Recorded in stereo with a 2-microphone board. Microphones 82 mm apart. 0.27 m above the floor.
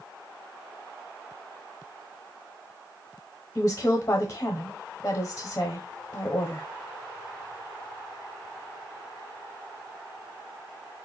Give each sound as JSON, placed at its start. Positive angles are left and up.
{"t": 3.5, "sound": "a woman speaking", "side_deg": 30, "distance_m": 1.0}